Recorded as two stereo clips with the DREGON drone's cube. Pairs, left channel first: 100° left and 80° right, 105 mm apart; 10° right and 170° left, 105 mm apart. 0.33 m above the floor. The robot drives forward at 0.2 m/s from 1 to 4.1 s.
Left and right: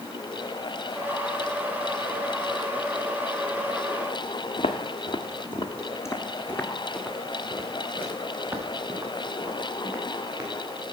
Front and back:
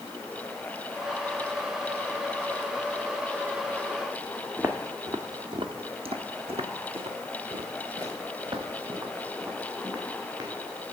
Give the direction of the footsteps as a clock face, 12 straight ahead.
9 o'clock.